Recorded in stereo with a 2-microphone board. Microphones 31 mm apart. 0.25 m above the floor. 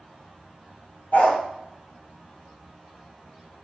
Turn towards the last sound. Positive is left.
turn(degrees=85)